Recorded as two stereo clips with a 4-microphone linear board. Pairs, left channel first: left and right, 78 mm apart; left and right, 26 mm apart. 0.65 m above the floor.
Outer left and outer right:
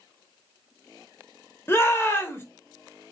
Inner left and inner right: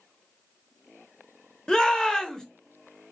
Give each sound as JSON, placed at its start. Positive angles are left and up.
{"t": 1.7, "sound": "a shout", "side_deg": 30, "distance_m": 0.7}